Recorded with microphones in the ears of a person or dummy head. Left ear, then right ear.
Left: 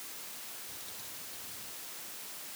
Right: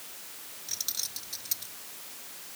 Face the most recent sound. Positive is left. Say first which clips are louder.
# right 12 dB
turn(degrees=-65)  # may be behind; listen again after turning